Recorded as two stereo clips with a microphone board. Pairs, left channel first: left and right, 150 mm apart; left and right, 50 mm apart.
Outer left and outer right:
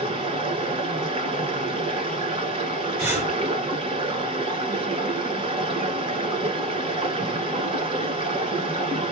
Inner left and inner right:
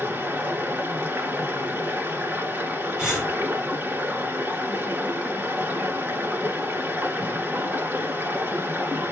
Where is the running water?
40° right (ahead or behind), 1.3 m.